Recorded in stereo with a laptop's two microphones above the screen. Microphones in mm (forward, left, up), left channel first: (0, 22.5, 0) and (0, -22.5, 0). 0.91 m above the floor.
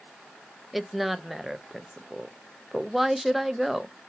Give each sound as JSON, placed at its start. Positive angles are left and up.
{"t": 0.7, "sound": "a woman speaking", "side_deg": -5, "distance_m": 0.6}